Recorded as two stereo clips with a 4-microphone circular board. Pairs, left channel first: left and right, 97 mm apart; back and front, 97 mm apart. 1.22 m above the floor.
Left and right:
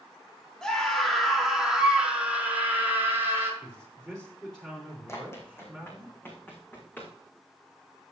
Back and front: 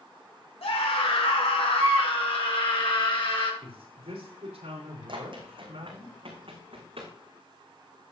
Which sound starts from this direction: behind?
A scream, at 0.6 s.